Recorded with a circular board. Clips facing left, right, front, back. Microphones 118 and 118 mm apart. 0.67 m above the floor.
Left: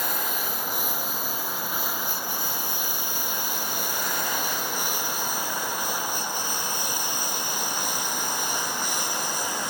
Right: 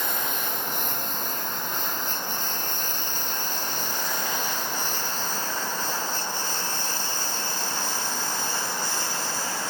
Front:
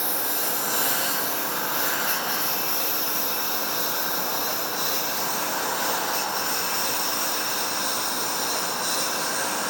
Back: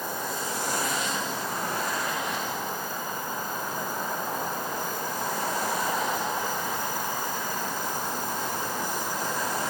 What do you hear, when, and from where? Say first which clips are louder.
0.0 s a lawn mower: even, front 1 dB; 5° left; by 9.7 s 15° left